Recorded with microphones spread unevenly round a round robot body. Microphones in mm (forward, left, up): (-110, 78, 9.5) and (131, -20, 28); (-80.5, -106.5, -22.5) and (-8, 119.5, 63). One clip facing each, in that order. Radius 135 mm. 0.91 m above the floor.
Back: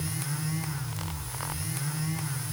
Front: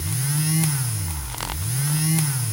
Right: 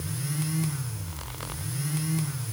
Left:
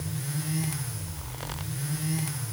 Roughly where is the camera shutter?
I don't hear a camera shutter.